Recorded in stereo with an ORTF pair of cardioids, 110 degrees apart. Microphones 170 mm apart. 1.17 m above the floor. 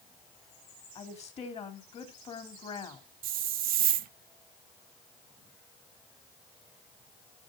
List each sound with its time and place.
0.9 s a woman speaking: 40° left, 3 m
3.2 s a hiss: 60° right, 0.7 m